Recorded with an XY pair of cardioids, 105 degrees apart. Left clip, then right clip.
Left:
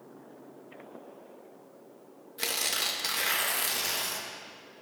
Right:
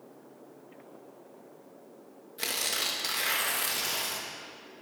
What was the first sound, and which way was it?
Tearing paper, 15° left.